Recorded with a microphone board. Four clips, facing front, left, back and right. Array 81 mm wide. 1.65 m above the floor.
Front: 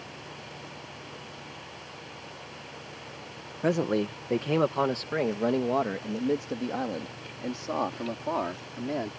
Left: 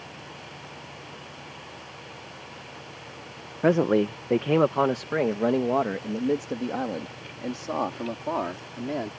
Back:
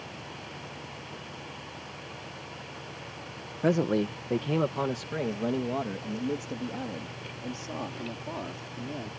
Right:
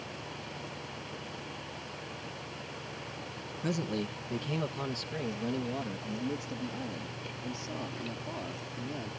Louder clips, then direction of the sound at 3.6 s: Left 13 dB, back 1 dB; 90° left.